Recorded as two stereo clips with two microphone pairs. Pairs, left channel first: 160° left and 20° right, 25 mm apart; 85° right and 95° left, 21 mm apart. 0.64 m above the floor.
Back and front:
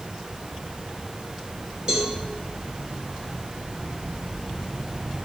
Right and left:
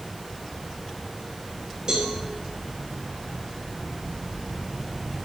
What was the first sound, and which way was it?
A cowbell, 40° left.